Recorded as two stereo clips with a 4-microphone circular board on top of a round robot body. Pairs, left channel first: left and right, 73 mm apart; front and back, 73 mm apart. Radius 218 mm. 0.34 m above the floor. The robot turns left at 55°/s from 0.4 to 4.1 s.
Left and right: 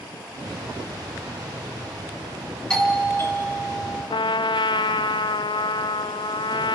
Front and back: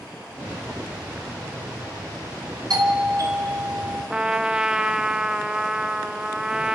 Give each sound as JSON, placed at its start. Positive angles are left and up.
{"t": 2.7, "sound": "a doorbell", "azimuth_deg": 170, "distance_m": 3.5}
{"t": 4.1, "sound": "a trumpet", "azimuth_deg": 100, "distance_m": 0.6}